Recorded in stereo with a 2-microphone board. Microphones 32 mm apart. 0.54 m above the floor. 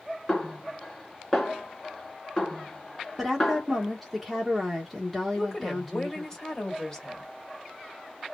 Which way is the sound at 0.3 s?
15° left (ahead or behind).